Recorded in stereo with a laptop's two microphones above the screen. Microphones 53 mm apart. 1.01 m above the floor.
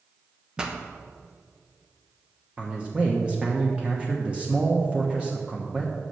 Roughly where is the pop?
Centre.